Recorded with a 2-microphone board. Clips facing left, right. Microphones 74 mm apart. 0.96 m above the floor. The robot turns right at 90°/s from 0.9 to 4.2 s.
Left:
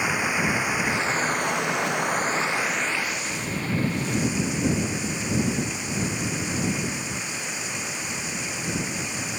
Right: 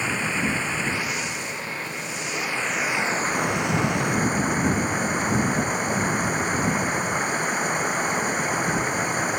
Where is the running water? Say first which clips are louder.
Left 1 dB; 15° left; by 9.4 s 50° right.